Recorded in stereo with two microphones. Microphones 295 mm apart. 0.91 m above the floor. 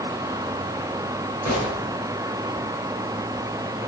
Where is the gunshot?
70° left (ahead or behind), 5.5 m.